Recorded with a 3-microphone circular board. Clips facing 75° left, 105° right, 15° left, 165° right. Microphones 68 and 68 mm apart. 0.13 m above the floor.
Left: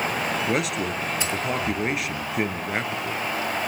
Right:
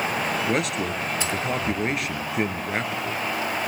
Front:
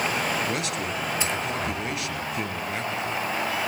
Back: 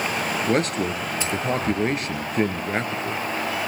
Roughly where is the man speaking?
Behind.